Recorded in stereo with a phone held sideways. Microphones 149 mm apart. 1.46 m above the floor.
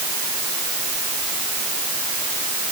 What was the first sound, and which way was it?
Only background noise.